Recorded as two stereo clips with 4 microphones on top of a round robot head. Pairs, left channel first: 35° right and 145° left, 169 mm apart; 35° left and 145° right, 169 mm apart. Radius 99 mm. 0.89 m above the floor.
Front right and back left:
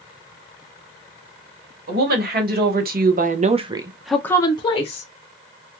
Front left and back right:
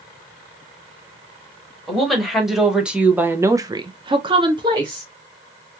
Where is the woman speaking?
125° left, 1.5 m; by 5.1 s 80° right, 1.0 m.